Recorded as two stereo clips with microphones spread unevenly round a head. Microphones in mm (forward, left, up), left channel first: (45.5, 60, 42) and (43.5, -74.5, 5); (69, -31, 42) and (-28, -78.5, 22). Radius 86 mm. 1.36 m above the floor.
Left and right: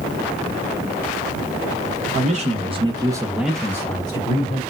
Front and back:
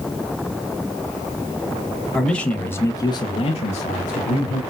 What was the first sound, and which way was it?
A man speaking, 60° right.